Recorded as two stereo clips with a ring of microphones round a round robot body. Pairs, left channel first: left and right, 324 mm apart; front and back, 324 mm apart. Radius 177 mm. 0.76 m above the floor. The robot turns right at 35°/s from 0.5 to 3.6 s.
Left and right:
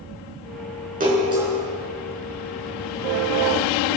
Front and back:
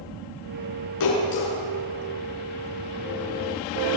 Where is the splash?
25° right, 6.5 m; by 1.5 s 5° right, 6.5 m.